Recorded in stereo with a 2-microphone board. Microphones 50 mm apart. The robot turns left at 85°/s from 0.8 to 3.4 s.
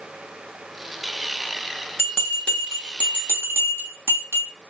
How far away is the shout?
I don't hear a shout.